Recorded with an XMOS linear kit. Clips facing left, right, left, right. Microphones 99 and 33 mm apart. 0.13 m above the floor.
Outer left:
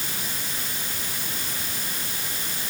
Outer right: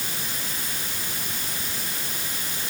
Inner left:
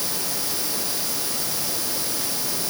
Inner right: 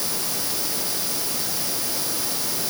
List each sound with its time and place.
Only background noise.